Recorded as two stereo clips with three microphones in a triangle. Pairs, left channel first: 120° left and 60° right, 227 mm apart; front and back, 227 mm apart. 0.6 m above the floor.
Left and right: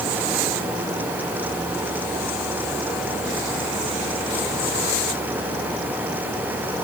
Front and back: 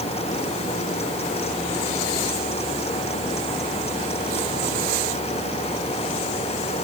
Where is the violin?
No violin in this recording.